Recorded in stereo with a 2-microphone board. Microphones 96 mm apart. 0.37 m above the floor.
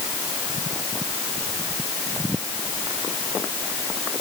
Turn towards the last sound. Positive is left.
No sound to turn to.